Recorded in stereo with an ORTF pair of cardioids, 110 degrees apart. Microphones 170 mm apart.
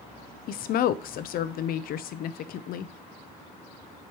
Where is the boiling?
I don't hear boiling.